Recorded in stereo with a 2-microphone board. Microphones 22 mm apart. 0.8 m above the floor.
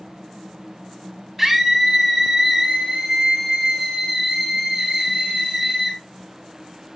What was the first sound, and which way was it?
A scream, 25° right (ahead or behind).